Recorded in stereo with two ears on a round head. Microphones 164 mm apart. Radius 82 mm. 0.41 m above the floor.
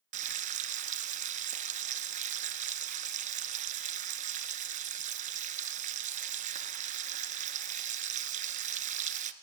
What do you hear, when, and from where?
0.1 s frying: 40° right (ahead or behind), 1.0 m